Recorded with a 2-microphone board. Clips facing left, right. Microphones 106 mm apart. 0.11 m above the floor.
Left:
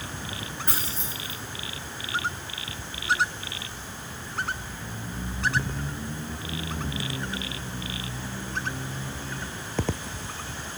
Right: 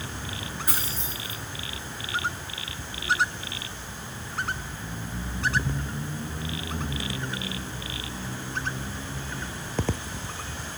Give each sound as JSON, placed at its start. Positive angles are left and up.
{"t": 0.7, "sound": "keys jangling", "side_deg": 50, "distance_m": 7.0}